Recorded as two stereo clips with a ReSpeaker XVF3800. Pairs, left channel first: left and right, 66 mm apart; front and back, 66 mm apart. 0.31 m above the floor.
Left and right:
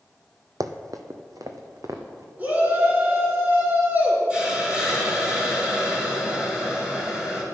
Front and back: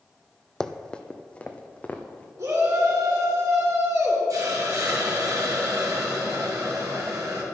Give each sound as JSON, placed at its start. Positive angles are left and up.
{"t": 0.6, "sound": "running footsteps", "azimuth_deg": -80, "distance_m": 0.8}
{"t": 2.4, "sound": "a shout", "azimuth_deg": -150, "distance_m": 4.5}
{"t": 4.3, "sound": "a hiss", "azimuth_deg": -160, "distance_m": 3.0}